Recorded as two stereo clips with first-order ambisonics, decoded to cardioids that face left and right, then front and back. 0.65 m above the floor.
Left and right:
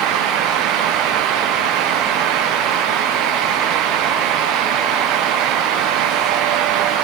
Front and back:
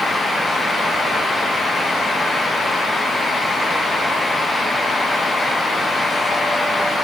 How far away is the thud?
No thud in this recording.